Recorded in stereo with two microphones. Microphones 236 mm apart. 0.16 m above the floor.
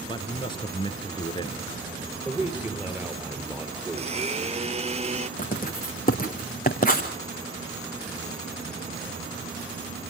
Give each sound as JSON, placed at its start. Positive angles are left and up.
{"t": 0.1, "sound": "a man speaking", "side_deg": 20, "distance_m": 3.0}
{"t": 2.2, "sound": "a man speaking", "side_deg": -10, "distance_m": 3.0}
{"t": 3.9, "sound": "a blender", "side_deg": -30, "distance_m": 0.8}
{"t": 5.4, "sound": "writing", "side_deg": 40, "distance_m": 3.0}